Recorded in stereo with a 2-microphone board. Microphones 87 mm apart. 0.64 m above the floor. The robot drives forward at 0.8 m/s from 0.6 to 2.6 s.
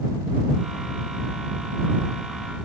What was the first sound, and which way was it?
Only background noise.